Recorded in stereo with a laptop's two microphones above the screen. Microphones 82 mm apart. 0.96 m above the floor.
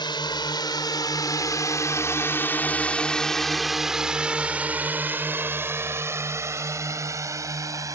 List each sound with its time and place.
0.0 s a drone: 70° left (ahead or behind); by 8.0 s 45° right (ahead or behind)